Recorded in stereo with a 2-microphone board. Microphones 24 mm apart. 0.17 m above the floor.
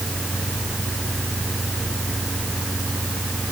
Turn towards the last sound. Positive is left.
No sound to turn to.